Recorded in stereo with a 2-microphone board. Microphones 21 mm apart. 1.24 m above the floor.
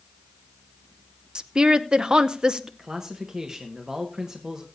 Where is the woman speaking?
45° right (ahead or behind), 0.6 m.